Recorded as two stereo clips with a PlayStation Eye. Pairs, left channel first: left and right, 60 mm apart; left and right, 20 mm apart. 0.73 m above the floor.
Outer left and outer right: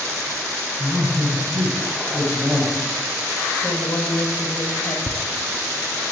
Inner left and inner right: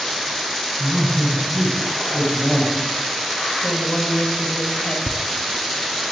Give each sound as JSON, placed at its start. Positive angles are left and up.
{"t": 0.8, "sound": "a man speaking", "side_deg": 0, "distance_m": 5.5}
{"t": 3.6, "sound": "a woman speaking", "side_deg": 70, "distance_m": 3.5}
{"t": 5.1, "sound": "laughter", "side_deg": 0, "distance_m": 0.7}